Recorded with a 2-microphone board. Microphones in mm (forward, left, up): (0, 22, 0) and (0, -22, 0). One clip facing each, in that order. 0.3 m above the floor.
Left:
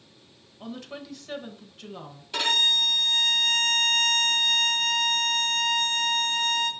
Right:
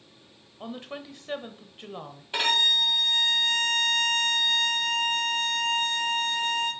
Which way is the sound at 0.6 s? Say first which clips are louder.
Right 1 dB; 25° right (ahead or behind).